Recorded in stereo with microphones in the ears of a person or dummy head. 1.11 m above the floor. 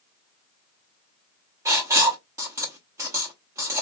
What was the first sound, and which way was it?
Writing, 15° right (ahead or behind).